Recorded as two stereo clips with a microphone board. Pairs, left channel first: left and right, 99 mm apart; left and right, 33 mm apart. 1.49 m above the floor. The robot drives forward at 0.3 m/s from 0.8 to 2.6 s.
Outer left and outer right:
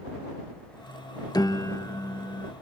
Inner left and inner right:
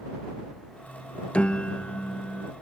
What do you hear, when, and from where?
1.3 s a piano: 45° left (ahead or behind); by 2.5 s 35° left (ahead or behind)